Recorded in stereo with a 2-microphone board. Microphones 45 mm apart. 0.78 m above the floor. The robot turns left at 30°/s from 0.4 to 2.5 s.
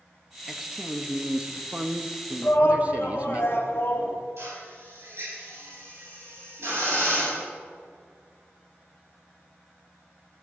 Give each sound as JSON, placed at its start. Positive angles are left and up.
{"t": 0.5, "sound": "a man speaking", "azimuth_deg": -10, "distance_m": 0.8}
{"t": 2.4, "sound": "a shout", "side_deg": 60, "distance_m": 1.9}
{"t": 4.4, "sound": "a drill", "side_deg": -70, "distance_m": 6.0}